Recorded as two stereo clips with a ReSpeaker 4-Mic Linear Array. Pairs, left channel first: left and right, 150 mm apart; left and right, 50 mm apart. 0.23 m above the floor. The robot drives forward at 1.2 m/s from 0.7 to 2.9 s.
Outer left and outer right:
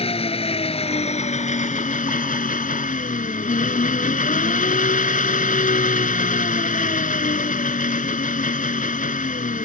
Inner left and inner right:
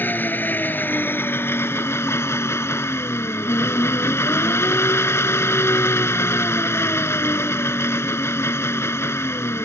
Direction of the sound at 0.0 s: 40° left (ahead or behind).